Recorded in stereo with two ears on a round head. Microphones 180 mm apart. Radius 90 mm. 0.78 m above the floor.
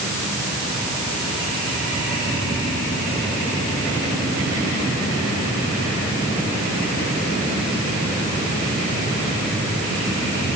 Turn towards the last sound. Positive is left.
No sound to turn to.